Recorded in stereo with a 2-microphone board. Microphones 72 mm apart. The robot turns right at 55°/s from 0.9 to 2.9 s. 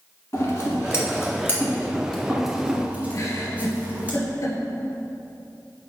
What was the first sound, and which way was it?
Scissors, 40° left (ahead or behind).